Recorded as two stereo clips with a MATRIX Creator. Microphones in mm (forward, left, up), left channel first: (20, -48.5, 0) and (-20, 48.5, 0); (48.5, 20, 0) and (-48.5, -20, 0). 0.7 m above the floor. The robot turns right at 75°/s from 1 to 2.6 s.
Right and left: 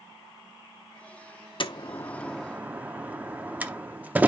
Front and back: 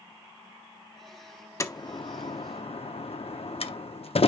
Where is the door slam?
40° right, 0.7 m; by 4.3 s 35° left, 0.7 m.